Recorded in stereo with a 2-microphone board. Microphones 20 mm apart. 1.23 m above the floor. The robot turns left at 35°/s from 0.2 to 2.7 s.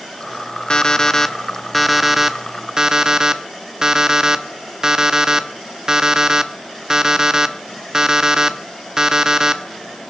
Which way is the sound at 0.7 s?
40° left.